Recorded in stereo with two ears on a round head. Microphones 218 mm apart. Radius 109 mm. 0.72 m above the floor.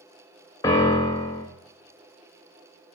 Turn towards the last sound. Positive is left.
turn(degrees=15)  # may be behind; listen again after turning